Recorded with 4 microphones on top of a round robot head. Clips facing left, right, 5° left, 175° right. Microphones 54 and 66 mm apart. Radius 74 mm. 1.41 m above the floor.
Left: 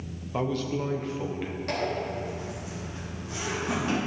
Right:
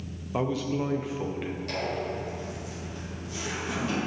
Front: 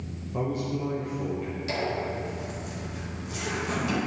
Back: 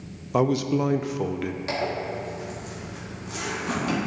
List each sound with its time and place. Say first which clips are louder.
0.3 s a man speaking: right 1 dB, back 8 dB; 175° right, 0.6 m
1.7 s a zipper: left 3 dB, even; 145° left, 2.0 m